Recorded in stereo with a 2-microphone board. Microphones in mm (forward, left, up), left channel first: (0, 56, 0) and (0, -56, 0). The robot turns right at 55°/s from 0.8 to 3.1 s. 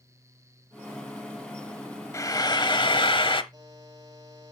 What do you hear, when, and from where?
2.1 s frying: 40° left, 1.0 m; by 3.4 s 90° left, 1.0 m
3.5 s a buzzer: 35° right (ahead or behind), 8 m